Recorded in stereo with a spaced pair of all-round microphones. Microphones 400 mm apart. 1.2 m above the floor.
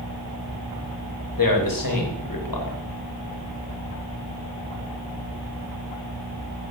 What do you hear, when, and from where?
1.4 s a man speaking: 60° left (ahead or behind), 0.8 m